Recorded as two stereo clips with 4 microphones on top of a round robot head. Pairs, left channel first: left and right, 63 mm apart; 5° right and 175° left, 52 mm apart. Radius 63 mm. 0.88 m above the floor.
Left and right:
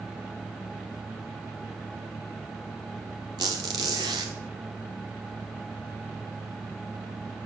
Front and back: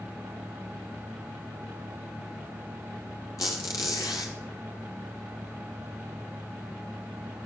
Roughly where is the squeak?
Ahead right.